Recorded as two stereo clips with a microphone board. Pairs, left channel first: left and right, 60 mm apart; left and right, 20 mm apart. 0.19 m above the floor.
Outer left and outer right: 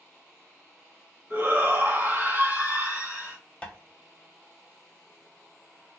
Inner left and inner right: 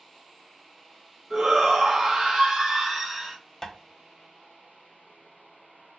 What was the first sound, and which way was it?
A shout, 35° right (ahead or behind).